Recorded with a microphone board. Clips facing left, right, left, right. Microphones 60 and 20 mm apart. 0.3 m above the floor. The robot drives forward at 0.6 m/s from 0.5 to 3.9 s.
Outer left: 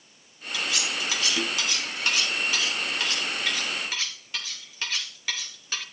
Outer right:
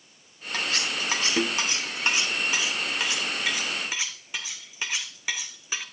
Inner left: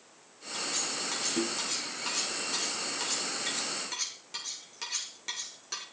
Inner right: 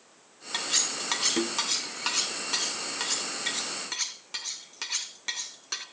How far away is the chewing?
No chewing in this recording.